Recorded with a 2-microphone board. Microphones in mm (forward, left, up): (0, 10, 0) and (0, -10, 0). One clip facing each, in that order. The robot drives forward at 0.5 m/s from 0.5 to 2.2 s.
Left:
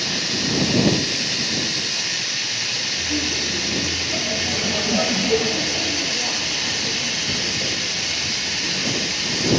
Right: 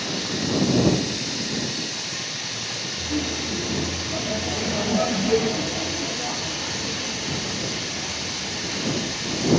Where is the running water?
80° left, 6 m; by 9.6 s 75° left (ahead or behind), 6 m.